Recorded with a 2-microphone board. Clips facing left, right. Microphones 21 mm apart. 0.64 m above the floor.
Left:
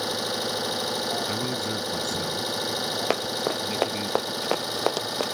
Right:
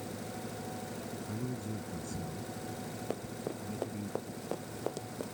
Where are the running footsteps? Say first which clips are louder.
Left 11 dB; 60° left (ahead or behind); by 5.3 s 55° left (ahead or behind).